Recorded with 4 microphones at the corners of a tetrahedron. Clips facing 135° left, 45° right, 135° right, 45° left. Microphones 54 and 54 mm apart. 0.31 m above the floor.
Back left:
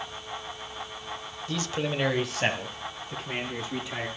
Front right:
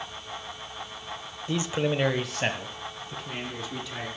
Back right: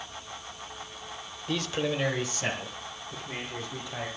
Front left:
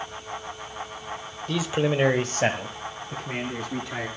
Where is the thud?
I don't hear a thud.